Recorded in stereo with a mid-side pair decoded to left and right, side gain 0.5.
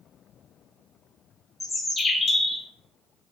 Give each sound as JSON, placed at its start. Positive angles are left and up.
{"t": 1.6, "sound": "a bird", "azimuth_deg": 25, "distance_m": 1.1}